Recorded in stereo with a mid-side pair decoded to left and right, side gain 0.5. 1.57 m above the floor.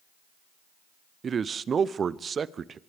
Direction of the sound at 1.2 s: 40° right.